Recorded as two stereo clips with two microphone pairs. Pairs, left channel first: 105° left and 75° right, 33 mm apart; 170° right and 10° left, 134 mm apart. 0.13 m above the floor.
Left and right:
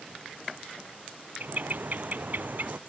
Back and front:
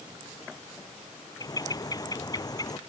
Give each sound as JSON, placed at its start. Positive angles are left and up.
{"t": 1.4, "sound": "a bird", "azimuth_deg": -110}